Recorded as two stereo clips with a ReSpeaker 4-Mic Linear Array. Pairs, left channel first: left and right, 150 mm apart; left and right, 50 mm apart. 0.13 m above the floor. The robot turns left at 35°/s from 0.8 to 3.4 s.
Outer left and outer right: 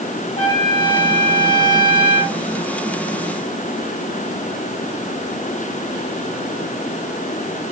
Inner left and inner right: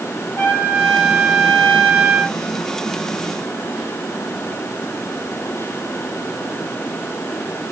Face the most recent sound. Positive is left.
turn(degrees=30)